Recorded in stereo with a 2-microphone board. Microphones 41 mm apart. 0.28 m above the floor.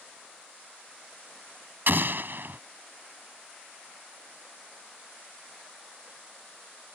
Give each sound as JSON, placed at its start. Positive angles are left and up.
{"t": 1.9, "sound": "an explosion", "side_deg": -60}